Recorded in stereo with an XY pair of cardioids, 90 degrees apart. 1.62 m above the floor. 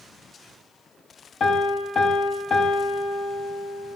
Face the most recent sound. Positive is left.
turn(degrees=70)